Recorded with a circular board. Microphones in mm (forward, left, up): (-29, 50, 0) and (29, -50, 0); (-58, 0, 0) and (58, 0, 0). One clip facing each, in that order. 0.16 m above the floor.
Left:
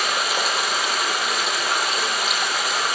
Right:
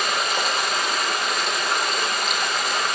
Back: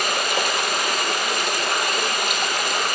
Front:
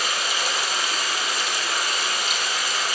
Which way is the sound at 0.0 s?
155° right.